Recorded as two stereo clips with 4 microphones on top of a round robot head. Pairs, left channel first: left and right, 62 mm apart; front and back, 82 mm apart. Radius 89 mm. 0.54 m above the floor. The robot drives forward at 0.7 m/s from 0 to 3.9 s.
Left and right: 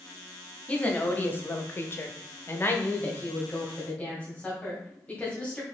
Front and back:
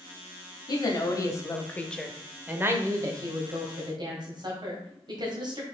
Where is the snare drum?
I don't hear a snare drum.